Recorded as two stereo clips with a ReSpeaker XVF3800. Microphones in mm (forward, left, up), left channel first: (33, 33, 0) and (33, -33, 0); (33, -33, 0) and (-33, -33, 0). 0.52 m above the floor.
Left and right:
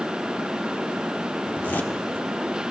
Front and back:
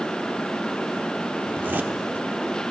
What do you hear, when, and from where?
1.5 s a zipper: 135° left, 1.0 m